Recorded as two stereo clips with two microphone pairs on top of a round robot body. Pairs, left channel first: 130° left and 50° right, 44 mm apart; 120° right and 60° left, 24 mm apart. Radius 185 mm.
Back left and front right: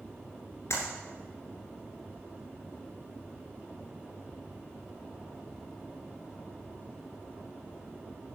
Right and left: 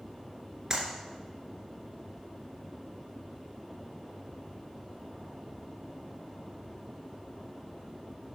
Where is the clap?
130° left, 2.5 m.